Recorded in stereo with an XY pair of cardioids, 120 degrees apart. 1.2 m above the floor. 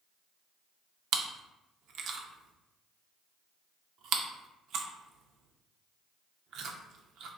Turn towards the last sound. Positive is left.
turn(degrees=-65)